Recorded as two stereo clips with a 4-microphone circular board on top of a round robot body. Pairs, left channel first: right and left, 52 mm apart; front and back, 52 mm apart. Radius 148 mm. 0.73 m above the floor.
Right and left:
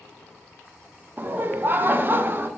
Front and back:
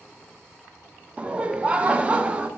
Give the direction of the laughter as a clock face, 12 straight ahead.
8 o'clock.